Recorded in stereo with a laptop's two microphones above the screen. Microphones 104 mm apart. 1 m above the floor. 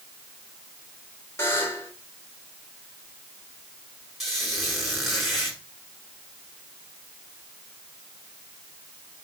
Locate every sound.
1.4 s a buzzer: 25° left (ahead or behind), 2.5 m
4.2 s a squeak: centre (ahead or behind), 6 m